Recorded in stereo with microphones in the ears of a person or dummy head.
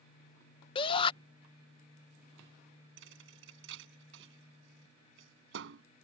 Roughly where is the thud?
Right.